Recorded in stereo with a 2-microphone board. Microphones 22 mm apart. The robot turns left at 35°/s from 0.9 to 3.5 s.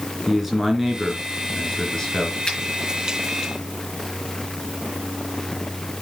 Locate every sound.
0.3 s a man speaking: 165° right, 3.5 m; by 2.4 s 145° left, 3.5 m
2.5 s a finger snap: 35° left (ahead or behind), 6 m; by 2.6 s 40° left (ahead or behind), 6 m